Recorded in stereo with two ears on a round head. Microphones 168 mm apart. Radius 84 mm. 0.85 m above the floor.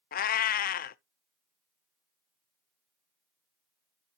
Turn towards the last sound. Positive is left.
turn(degrees=50)  # may be behind; listen again after turning